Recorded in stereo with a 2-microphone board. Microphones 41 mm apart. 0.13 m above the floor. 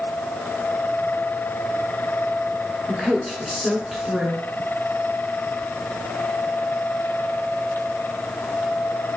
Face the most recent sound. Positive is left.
turn(degrees=-5)  # may be behind; listen again after turning